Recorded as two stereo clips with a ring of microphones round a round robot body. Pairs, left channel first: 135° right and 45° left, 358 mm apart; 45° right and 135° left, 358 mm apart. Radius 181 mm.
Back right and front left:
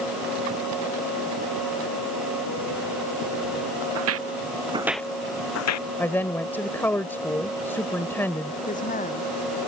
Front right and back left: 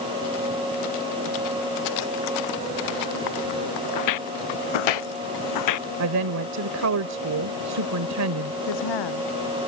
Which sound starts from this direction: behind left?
A woman speaking, at 6.0 s.